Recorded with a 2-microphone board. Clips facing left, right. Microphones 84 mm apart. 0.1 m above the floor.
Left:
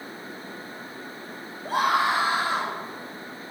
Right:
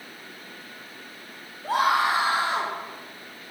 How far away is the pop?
I don't hear a pop.